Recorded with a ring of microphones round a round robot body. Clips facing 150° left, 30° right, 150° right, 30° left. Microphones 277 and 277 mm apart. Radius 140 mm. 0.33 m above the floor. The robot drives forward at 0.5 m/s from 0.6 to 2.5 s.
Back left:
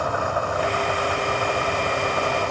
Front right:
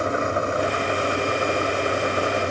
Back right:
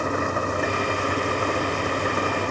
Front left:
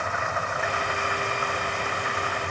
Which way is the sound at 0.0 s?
100° right.